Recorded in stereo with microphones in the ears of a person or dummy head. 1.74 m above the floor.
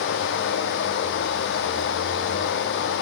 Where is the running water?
65° left (ahead or behind), 2 m.